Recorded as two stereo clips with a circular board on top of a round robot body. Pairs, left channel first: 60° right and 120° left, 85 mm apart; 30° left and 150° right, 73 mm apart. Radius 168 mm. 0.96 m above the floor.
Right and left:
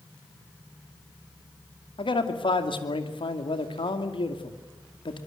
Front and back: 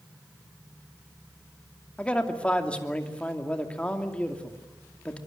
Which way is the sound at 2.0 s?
45° right.